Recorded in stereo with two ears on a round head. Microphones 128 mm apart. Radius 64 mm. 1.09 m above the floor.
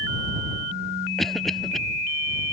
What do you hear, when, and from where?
1.2 s a cough: centre (ahead or behind)